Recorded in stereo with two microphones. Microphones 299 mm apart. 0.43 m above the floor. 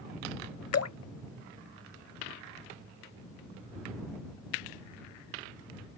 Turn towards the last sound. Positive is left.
turn(degrees=55)  # may be behind; listen again after turning